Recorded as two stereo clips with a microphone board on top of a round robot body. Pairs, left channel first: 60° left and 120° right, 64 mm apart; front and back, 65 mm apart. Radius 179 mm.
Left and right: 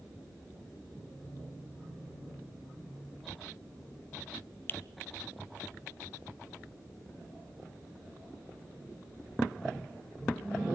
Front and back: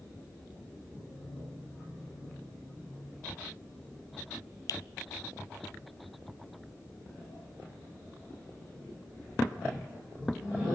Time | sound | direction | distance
4.7 | a finger snap | 10° left | 0.8 m